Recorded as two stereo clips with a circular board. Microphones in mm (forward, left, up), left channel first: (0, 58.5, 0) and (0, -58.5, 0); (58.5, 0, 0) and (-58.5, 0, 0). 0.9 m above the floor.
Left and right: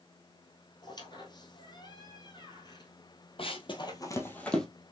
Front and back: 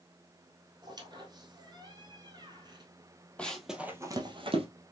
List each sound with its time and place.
0.8 s a squeak: 135° left, 1.5 m
3.4 s running footsteps: 80° left, 1.4 m; by 4.7 s 175° left, 1.4 m